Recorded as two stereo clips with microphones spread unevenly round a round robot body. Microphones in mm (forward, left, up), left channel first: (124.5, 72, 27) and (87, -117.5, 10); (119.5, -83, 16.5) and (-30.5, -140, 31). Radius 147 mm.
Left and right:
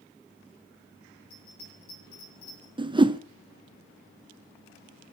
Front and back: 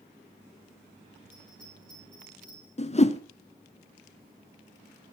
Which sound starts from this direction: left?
A bell, at 1.3 s.